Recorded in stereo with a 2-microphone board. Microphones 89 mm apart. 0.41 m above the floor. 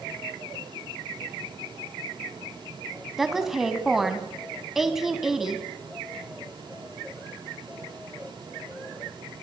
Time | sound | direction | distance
3.2 | a woman speaking | 5° right (ahead or behind) | 3 m